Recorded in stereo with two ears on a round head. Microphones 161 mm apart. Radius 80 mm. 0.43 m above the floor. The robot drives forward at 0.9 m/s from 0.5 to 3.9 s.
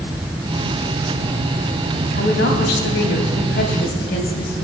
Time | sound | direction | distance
2.1 | a woman speaking | 60° left (ahead or behind) | 3.5 m